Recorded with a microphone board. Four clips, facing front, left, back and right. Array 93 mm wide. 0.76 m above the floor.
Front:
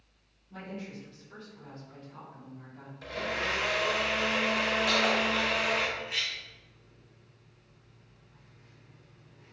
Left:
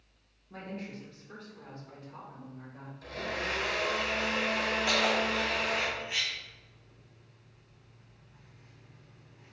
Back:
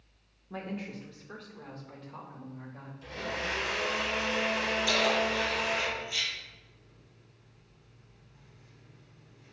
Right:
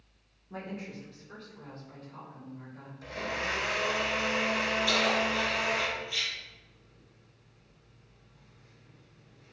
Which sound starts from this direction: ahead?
A blender, at 3.0 s.